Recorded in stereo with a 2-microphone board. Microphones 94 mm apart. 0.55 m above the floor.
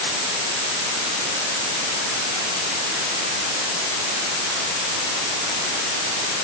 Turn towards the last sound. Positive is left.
No sound to turn to.